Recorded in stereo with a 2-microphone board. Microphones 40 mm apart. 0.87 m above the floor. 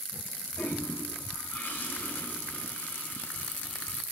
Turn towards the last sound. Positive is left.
turn(degrees=55)  # may be behind; listen again after turning